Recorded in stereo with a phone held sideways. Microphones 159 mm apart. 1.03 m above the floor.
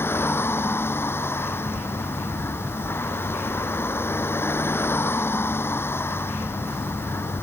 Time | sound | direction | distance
0.0 | a vehicle | 15° left (ahead or behind) | ?